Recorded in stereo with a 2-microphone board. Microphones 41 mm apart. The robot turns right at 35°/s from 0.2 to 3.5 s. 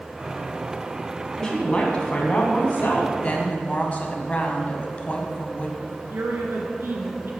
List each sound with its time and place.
1.4 s a woman speaking: 20° left, 1.7 m; by 3.1 s 80° left, 1.7 m
3.2 s a woman speaking: 30° left (ahead or behind), 1.3 m; by 5.7 s 35° left (ahead or behind), 1.3 m
5.8 s a woman speaking: 70° right (ahead or behind), 2.5 m